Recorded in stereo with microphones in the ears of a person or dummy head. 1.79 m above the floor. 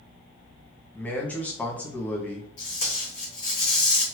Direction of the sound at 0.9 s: 10° left (ahead or behind).